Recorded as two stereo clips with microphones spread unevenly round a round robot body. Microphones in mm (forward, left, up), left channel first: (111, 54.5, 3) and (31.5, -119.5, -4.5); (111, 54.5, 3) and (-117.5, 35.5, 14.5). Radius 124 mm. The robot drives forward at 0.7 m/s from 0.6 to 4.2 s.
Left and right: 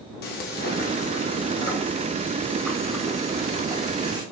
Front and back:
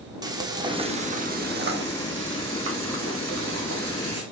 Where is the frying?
110° left, 1.1 m; by 4.2 s 160° left, 3 m.